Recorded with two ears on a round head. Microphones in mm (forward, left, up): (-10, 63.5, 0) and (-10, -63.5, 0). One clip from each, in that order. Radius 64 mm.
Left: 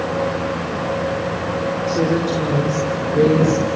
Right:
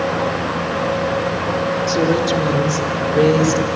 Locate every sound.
1.9 s a woman speaking: 70° right (ahead or behind), 5.5 m; by 3.7 s 60° right (ahead or behind), 5 m